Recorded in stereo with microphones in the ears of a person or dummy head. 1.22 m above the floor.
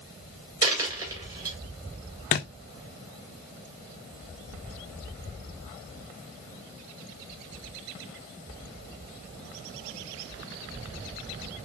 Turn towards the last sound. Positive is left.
turn(degrees=40)  # may be behind; listen again after turning